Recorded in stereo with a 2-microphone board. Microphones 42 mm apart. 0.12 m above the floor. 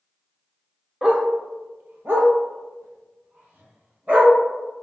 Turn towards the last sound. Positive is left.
turn(degrees=-45)  # may be behind; listen again after turning